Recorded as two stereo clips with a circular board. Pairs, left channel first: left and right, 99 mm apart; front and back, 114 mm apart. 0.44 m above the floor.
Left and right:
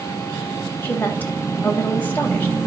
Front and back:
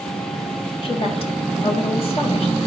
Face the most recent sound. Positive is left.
turn(degrees=20)